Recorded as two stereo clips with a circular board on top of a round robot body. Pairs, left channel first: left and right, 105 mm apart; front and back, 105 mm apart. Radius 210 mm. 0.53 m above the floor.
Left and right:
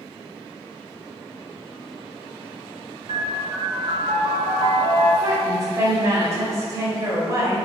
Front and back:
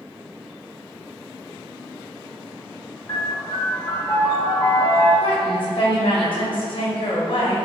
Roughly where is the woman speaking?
Ahead right.